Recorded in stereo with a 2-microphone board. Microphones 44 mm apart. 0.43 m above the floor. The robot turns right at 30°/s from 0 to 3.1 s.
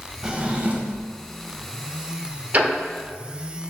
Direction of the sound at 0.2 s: 20° right (ahead or behind).